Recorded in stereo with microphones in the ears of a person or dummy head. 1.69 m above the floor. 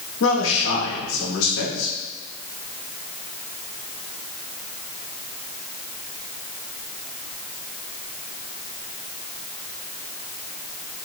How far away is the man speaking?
About 2.0 m.